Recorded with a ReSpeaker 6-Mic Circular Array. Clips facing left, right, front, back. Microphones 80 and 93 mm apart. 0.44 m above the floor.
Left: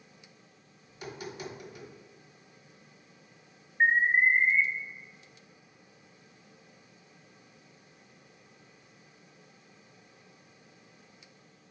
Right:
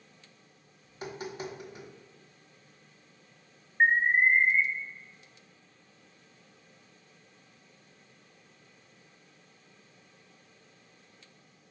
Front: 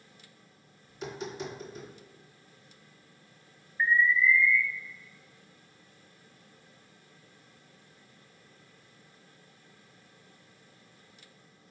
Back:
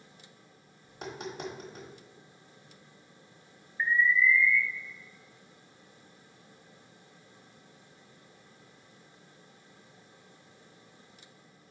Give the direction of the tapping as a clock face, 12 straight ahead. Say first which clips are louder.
Right 2 dB, front 2 dB; 5 o'clock.